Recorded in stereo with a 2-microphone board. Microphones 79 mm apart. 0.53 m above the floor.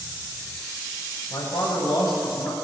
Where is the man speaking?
70° left (ahead or behind), 3 m; by 2.5 s 60° left (ahead or behind), 3.5 m.